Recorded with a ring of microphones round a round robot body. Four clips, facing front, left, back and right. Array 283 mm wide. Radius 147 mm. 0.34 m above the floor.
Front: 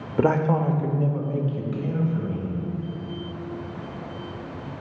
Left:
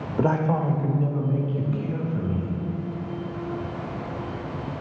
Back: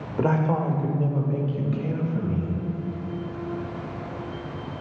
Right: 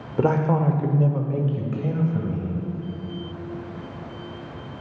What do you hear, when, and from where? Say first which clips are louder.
0.2 s a man speaking: right 2 dB, front 2 dB; 20° right, 0.9 m; by 2.6 s 110° right, 2 m